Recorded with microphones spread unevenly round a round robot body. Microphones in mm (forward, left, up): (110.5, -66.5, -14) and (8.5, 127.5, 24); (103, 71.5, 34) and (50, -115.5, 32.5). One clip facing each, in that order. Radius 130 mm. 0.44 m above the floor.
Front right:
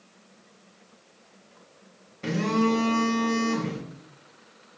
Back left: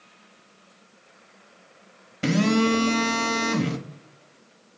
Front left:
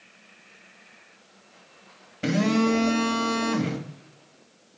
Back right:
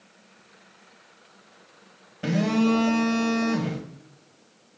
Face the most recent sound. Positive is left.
turn(degrees=150)